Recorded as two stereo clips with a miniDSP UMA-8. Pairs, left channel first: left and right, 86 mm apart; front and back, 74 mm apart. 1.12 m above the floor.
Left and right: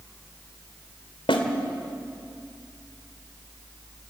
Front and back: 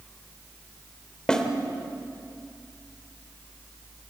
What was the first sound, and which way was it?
A snare drum, 80° left.